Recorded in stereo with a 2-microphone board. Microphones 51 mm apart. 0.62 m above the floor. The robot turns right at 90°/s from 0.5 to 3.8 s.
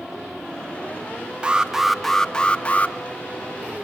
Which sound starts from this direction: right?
An alarm, at 1.4 s.